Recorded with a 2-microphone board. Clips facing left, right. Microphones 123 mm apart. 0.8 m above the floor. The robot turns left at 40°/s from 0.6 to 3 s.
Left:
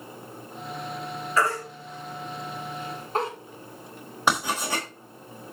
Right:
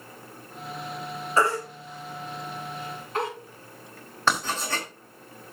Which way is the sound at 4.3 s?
15° left (ahead or behind).